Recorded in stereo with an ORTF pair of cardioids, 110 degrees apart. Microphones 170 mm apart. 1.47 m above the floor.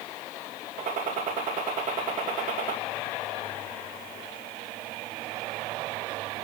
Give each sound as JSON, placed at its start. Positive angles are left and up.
{"t": 0.8, "sound": "a gunshot", "azimuth_deg": -55, "distance_m": 2.5}